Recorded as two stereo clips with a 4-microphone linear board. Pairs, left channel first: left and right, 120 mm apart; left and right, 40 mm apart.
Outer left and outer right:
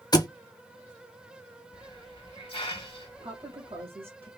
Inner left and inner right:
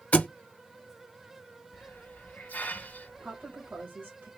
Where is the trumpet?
I don't hear a trumpet.